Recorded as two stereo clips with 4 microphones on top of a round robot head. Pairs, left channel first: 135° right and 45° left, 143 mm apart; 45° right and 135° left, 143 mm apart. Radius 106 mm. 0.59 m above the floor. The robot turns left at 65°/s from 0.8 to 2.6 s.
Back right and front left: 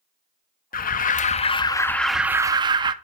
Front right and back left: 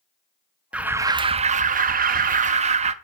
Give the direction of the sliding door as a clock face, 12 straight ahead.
No sliding door in this recording.